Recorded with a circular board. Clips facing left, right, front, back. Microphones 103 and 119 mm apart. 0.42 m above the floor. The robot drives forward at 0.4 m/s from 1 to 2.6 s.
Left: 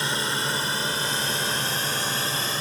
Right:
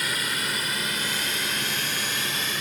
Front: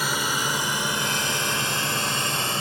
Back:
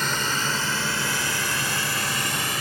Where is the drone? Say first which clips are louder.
Left 3 dB, even; 75° left; by 2.6 s 50° left.